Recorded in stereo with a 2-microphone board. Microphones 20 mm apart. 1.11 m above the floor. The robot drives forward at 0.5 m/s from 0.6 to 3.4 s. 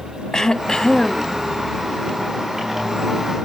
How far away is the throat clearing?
About 0.6 m.